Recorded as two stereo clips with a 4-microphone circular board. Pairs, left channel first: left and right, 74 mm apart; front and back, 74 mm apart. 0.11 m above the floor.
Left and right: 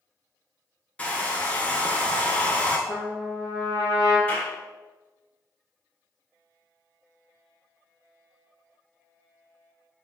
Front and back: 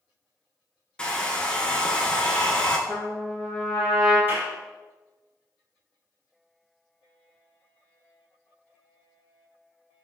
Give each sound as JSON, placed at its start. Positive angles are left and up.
{"t": 1.0, "sound": "a hair dryer", "azimuth_deg": 55, "distance_m": 0.6}
{"t": 2.9, "sound": "a trumpet", "azimuth_deg": 65, "distance_m": 1.7}
{"t": 4.3, "sound": "a clap", "azimuth_deg": 140, "distance_m": 1.3}